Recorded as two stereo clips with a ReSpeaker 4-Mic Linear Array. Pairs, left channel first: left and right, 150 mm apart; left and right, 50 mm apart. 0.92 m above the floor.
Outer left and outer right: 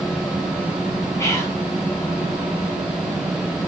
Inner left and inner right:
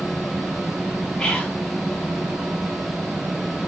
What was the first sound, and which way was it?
Whispering, 20° left (ahead or behind).